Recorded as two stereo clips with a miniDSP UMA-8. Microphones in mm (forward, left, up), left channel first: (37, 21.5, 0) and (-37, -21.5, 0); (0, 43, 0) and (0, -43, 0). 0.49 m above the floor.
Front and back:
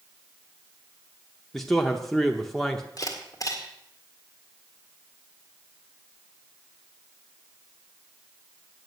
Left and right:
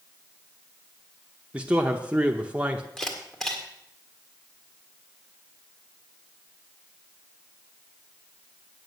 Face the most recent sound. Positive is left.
turn(degrees=10)